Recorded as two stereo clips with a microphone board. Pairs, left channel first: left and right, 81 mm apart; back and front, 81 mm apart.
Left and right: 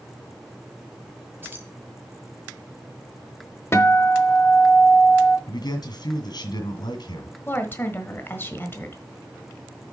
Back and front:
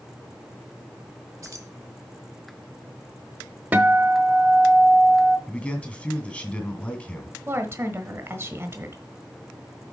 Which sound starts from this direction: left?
A man speaking, at 5.5 s.